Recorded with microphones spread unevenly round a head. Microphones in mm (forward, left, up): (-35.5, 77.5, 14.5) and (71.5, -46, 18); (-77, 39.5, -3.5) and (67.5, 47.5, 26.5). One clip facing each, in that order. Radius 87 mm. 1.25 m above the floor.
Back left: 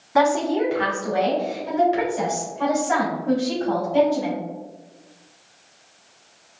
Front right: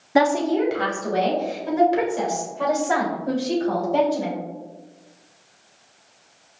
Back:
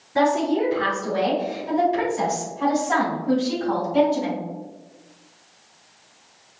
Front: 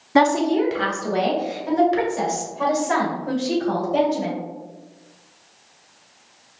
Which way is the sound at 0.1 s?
5° left.